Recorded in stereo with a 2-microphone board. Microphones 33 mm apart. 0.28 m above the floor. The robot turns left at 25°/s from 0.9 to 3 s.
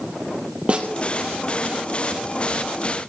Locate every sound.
0.7 s a snare drum: 35° right (ahead or behind), 3 m